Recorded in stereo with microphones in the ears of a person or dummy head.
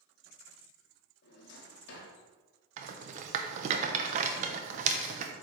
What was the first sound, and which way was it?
A drawer, 65° left (ahead or behind).